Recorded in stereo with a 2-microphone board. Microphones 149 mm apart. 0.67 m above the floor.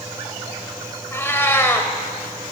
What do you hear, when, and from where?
1.1 s a cat meowing: 15° left (ahead or behind), 1.4 m